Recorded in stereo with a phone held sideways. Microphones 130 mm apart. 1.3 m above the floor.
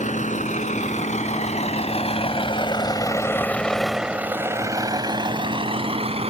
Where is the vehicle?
75° left (ahead or behind); by 6.3 s 50° right (ahead or behind).